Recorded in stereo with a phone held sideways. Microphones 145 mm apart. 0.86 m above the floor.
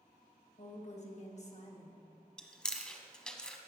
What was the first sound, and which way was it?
A woman speaking, 50° left (ahead or behind).